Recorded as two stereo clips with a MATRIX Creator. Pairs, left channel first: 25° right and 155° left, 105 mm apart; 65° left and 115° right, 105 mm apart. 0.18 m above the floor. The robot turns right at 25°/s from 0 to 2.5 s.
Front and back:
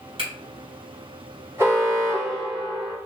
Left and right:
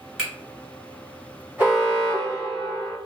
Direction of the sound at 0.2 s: 165° left.